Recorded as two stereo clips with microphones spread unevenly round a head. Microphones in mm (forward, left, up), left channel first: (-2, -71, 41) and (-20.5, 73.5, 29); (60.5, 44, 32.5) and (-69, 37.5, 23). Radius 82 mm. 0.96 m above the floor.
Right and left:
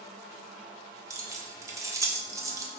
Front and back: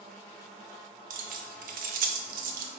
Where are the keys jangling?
165° left, 0.5 m.